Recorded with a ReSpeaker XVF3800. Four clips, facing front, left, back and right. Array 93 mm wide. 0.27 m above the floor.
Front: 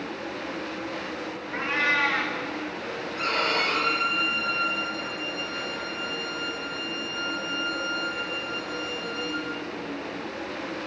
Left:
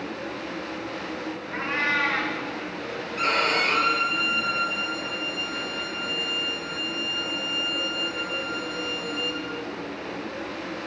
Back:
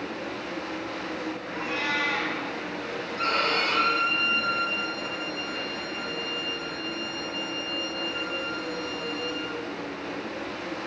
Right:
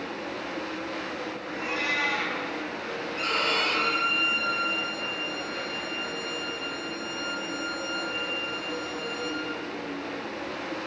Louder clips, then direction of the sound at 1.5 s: Left 4 dB, front 5 dB; 40° left.